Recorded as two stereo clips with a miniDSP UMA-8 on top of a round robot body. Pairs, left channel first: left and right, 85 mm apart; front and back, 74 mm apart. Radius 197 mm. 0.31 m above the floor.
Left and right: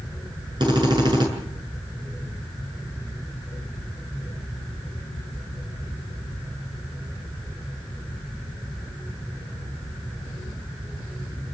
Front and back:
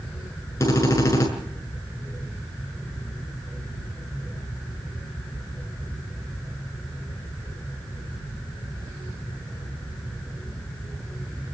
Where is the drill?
55° right, 7 m.